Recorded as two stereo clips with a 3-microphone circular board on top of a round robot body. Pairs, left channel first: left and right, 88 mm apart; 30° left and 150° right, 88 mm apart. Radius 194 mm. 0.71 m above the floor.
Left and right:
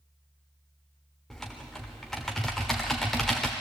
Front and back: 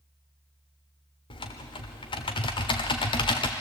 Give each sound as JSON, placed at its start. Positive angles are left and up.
{"t": 1.3, "sound": "typing on a keyboard", "azimuth_deg": 5, "distance_m": 0.7}